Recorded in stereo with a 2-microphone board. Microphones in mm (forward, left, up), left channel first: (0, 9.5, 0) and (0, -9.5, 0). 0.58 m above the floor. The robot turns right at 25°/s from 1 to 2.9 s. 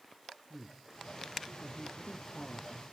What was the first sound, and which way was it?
A man speaking, 5° right (ahead or behind).